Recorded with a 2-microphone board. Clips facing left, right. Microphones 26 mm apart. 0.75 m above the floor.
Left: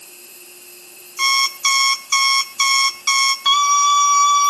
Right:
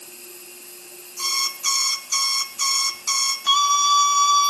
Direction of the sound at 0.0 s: 25° left (ahead or behind).